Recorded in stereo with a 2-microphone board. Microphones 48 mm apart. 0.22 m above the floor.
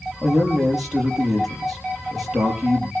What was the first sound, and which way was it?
A man speaking, 5° right (ahead or behind).